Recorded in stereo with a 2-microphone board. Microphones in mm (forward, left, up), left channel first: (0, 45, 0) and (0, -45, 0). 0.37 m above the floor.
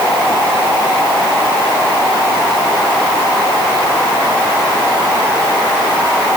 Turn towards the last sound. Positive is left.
No sound to turn to.